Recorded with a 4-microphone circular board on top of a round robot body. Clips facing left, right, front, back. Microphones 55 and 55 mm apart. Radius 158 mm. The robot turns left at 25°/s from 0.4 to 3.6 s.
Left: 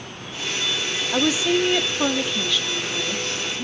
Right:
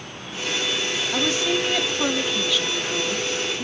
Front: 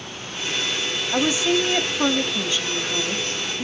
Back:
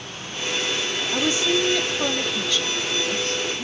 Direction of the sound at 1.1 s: 35° left.